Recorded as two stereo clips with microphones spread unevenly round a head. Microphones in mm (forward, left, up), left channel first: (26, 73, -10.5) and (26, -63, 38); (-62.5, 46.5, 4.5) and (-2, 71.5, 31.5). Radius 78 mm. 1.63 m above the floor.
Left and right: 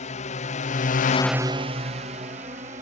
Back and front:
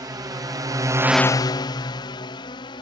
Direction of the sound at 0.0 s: 55° left.